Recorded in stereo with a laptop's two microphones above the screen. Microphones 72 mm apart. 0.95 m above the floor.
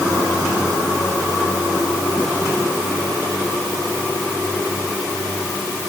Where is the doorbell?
I don't hear a doorbell.